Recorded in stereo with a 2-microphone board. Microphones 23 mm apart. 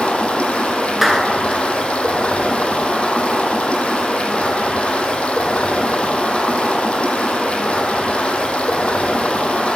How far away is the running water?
About 0.9 m.